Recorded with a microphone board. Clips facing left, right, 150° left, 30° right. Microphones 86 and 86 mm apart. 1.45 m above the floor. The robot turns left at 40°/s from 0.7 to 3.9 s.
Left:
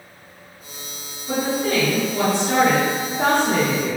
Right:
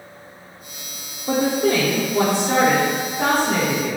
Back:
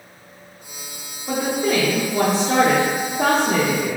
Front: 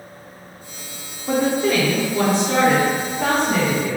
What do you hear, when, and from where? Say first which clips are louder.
1.3 s a woman speaking: right 3 dB, front 2 dB; 115° right, 0.5 m; by 4.0 s 140° left, 0.5 m